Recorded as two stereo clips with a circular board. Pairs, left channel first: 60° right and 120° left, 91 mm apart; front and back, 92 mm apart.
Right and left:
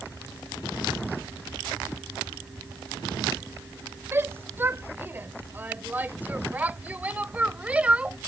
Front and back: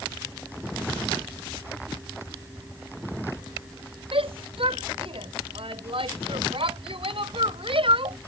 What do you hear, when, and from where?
4.1 s a shout: 175° right; by 8.2 s 165° right